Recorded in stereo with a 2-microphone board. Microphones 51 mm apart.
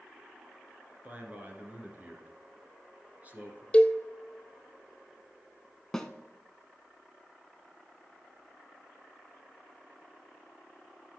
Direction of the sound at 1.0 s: 30° right (ahead or behind).